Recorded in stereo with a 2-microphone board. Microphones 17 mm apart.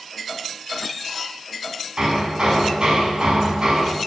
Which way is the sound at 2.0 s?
55° right (ahead or behind).